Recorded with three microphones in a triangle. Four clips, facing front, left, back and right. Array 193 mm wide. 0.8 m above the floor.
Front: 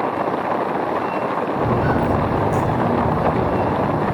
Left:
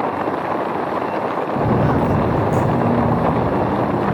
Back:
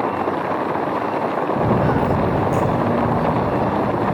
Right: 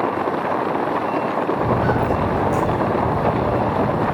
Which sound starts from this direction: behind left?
Footsteps, at 1.6 s.